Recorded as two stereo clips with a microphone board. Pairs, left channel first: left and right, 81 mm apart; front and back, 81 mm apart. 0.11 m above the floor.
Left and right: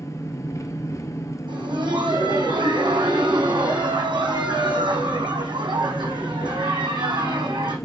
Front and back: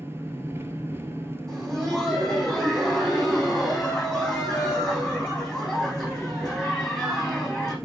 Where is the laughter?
95° right, 5.5 m.